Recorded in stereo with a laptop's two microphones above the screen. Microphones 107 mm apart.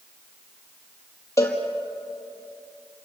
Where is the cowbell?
25° left (ahead or behind), 4 m.